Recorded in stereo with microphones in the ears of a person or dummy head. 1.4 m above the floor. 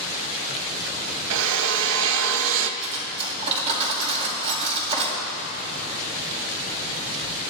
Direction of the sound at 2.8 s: 30° right (ahead or behind).